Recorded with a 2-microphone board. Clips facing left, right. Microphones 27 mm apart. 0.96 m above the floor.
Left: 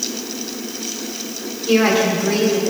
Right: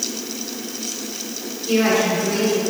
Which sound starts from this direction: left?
A woman speaking, at 1.7 s.